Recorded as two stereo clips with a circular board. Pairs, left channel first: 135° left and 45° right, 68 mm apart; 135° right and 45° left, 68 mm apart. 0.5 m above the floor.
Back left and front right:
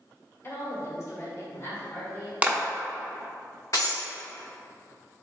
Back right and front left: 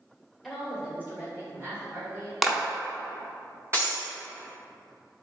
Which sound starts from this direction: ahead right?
A clap, at 2.4 s.